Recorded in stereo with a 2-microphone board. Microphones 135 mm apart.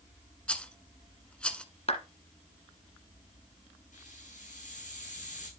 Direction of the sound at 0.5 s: 10° left (ahead or behind).